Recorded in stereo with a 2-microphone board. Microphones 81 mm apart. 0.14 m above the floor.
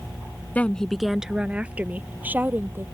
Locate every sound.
0.6 s a woman speaking: 20° left (ahead or behind); by 2.8 s 25° right (ahead or behind)